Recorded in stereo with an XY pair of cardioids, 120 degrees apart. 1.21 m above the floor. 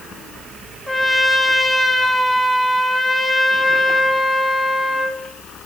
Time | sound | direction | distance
0.9 | a trumpet | 10° left | 1.5 m